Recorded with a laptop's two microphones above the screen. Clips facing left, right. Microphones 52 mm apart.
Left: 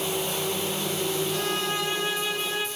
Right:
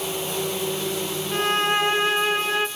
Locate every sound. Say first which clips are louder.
1.3 s a violin: right 6 dB; 45° right (ahead or behind), 1.0 m